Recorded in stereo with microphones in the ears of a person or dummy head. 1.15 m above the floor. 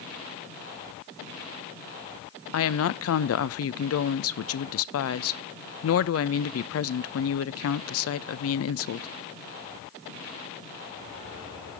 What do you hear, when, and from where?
2.5 s a woman speaking: 70° left (ahead or behind), 0.8 m